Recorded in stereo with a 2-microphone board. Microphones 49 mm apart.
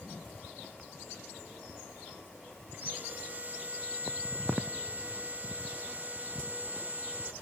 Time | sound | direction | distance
2.7 | sawing | 40° right (ahead or behind) | 0.7 m